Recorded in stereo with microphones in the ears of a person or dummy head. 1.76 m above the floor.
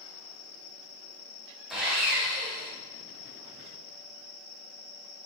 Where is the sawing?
5° right (ahead or behind), 0.8 m.